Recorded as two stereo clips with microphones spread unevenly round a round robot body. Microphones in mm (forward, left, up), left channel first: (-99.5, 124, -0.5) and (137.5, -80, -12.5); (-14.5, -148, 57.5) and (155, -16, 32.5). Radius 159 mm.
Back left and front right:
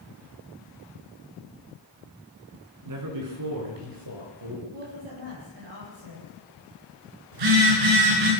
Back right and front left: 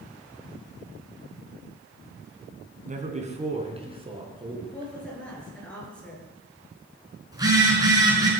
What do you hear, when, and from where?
2.9 s a man speaking: 15° right, 4 m; by 4.9 s 30° right, 6 m
4.7 s a woman speaking: 55° right, 9.5 m
7.3 s a phone buzzing: 35° right, 6.5 m